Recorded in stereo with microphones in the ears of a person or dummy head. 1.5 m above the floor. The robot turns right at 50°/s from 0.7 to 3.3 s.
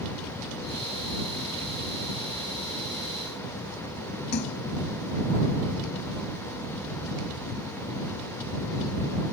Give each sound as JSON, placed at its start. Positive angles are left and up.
{"t": 4.3, "sound": "a splash", "side_deg": 60}